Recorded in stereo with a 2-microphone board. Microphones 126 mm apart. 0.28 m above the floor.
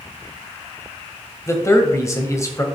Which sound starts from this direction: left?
A man speaking, at 1.5 s.